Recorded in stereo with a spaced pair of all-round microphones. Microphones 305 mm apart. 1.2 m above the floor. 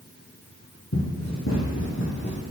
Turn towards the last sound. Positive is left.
turn(degrees=35)  # may be behind; listen again after turning